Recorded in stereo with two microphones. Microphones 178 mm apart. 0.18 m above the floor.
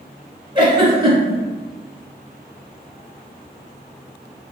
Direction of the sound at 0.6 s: 30° right (ahead or behind).